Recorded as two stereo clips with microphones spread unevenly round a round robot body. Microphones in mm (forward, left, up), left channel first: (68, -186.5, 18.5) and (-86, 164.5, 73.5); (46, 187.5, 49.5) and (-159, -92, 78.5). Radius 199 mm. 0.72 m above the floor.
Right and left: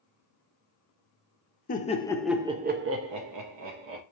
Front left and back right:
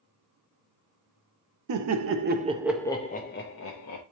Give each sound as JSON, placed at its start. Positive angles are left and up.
{"t": 1.7, "sound": "laughter", "azimuth_deg": -115, "distance_m": 0.8}